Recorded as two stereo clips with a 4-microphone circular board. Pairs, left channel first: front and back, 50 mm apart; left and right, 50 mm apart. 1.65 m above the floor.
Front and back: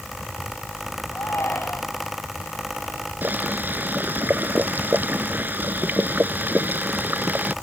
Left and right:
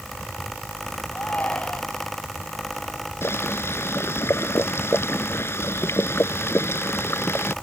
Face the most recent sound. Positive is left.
turn(degrees=125)